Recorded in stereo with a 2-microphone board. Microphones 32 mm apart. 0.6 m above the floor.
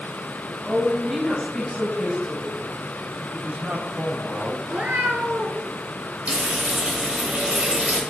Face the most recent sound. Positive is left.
turn(degrees=-40)  # may be behind; listen again after turning